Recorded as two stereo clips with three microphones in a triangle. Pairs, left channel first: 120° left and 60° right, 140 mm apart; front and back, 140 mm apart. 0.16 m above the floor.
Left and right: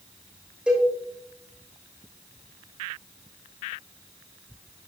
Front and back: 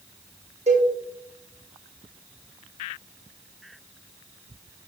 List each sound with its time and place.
0.7 s a cowbell: 145° right, 2.5 m